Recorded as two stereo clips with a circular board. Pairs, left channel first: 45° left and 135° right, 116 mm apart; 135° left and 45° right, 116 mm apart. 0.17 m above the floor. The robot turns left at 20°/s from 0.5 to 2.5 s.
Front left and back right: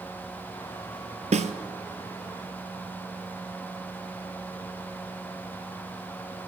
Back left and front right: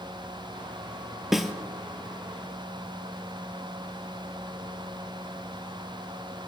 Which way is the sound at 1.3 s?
130° right.